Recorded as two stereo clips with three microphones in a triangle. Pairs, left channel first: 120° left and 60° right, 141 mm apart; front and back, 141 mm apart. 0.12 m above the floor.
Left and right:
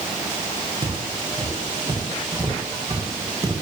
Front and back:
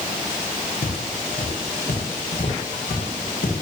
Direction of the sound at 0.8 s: 5° right.